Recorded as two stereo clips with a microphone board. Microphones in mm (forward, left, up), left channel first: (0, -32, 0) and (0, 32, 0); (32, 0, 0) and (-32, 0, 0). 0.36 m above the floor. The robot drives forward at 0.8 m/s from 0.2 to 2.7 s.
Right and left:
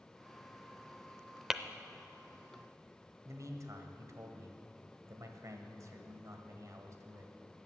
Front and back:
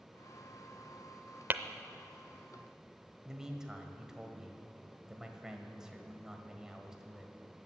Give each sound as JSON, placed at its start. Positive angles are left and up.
{"t": 1.5, "sound": "tapping", "azimuth_deg": 165, "distance_m": 0.5}
{"t": 3.2, "sound": "a man speaking", "azimuth_deg": 100, "distance_m": 1.4}